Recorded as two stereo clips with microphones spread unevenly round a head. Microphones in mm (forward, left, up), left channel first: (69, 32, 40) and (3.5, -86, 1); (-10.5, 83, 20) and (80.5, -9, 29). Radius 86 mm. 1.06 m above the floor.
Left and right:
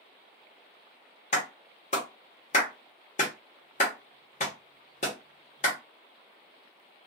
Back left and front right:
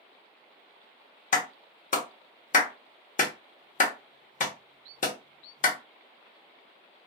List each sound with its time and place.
1.3 s a clap: 110° left, 0.9 m